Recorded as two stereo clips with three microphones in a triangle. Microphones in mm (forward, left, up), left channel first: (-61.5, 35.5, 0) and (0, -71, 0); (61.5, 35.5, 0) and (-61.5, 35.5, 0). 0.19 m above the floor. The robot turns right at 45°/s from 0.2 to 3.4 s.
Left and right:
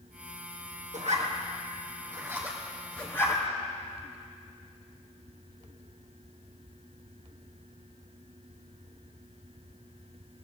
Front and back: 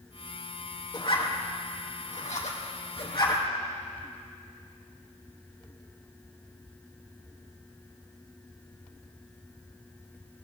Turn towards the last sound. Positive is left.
turn(degrees=55)